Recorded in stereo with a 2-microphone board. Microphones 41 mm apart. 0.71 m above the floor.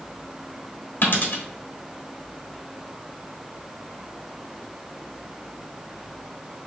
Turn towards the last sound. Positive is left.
turn(degrees=50)  # may be behind; listen again after turning